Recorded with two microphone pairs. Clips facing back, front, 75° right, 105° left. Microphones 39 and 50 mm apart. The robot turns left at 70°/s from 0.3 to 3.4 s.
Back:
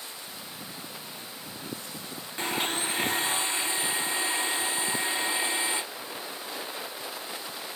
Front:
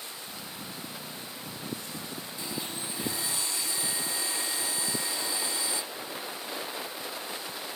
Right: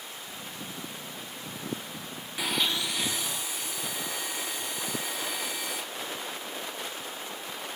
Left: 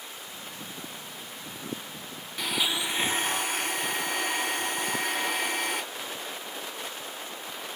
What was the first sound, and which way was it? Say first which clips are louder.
A blender: back 10 dB, even; 155° right.